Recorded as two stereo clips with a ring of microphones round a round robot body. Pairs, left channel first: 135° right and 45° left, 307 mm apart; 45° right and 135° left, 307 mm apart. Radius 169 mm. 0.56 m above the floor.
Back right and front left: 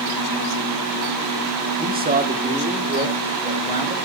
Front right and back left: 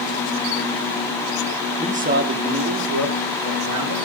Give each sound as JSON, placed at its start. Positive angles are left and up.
{"t": 1.8, "sound": "a man speaking", "azimuth_deg": 75, "distance_m": 1.2}